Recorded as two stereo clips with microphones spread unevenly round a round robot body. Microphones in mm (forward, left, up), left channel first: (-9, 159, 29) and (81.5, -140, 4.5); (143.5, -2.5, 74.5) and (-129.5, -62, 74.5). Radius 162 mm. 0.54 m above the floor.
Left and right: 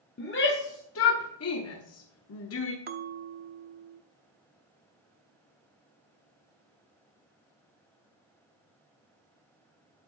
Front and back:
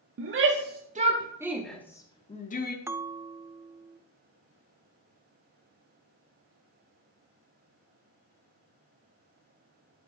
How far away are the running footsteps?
No running footsteps in this recording.